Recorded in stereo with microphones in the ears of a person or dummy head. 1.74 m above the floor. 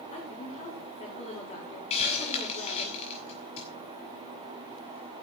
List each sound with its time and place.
0.1 s a woman speaking: 30° left (ahead or behind), 6.5 m
1.9 s a hiss: 35° left (ahead or behind), 8 m